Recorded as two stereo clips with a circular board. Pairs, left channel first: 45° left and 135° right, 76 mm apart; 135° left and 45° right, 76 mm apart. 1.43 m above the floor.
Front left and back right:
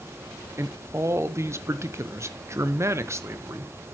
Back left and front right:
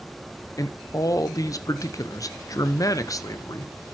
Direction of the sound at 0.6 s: 175° left.